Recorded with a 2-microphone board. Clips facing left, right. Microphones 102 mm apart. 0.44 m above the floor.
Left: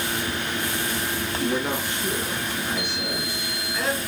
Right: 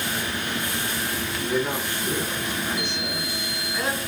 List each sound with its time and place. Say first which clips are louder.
1.4 s a man speaking: even; 30° left (ahead or behind), 5.5 m; by 4.0 s 5° right (ahead or behind), 4 m